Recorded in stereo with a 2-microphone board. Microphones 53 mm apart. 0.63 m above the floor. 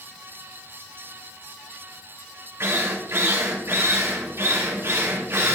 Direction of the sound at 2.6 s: 50° right (ahead or behind).